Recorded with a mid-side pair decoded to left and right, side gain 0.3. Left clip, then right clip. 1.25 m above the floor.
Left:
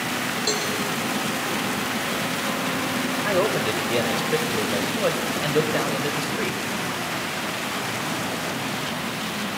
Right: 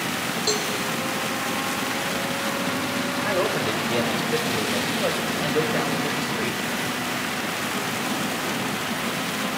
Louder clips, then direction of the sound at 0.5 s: Right 1 dB; 5° left.